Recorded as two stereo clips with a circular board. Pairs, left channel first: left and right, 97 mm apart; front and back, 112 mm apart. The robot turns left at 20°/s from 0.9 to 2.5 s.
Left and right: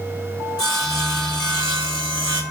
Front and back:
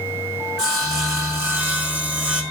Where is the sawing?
130° left, 3 m; by 2.4 s 100° left, 3 m.